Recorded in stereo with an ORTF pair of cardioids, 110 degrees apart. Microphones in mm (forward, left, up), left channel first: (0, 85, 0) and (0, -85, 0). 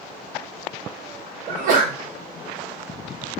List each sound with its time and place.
1.5 s a sneeze: 60° right, 0.8 m